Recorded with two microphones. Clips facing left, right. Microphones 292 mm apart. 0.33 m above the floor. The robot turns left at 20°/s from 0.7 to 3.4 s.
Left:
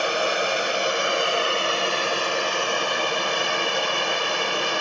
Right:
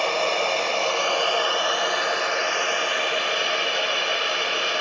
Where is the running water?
165° left, 0.7 m; by 4.8 s 110° left, 0.7 m.